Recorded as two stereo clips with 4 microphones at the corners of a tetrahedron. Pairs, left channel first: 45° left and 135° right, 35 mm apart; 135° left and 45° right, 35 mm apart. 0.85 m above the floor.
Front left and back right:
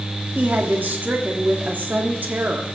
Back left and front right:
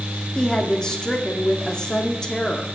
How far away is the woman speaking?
About 1.8 m.